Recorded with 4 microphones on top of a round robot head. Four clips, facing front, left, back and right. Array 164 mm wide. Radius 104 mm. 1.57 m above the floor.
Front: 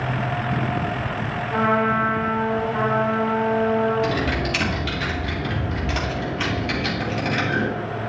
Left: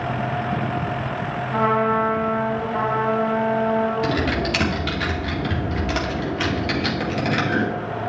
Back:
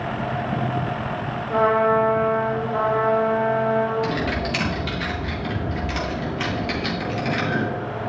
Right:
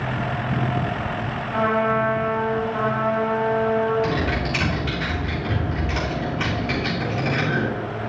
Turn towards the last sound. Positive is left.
turn(degrees=90)